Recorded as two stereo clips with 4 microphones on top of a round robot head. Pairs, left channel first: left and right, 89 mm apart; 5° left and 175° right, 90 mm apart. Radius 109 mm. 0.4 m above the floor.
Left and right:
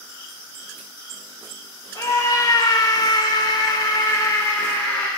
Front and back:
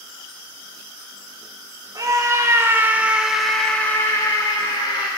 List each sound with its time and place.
1.9 s a scream: 140° left, 2 m; by 5.1 s 25° left, 1.9 m